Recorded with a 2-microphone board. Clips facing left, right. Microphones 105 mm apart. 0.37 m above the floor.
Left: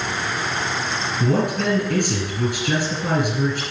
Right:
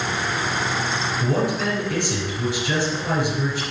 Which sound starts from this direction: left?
A man speaking, at 1.2 s.